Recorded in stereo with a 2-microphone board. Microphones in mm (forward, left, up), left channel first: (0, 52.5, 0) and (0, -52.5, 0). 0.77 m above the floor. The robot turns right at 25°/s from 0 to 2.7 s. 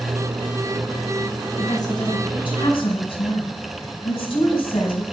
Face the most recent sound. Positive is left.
turn(degrees=60)  # may be behind; listen again after turning